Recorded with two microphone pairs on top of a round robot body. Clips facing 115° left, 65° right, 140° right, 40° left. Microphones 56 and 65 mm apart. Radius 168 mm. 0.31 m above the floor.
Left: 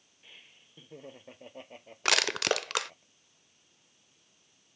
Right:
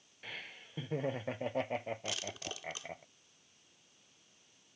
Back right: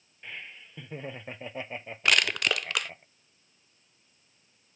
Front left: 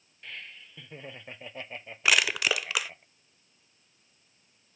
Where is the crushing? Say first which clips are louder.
Left 14 dB, even; 120° left.